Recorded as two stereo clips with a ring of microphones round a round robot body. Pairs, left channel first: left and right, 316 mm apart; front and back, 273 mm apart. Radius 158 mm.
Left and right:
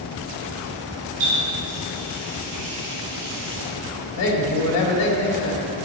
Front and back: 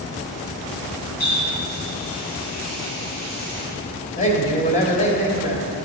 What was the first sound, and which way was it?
A running tap, 60° right.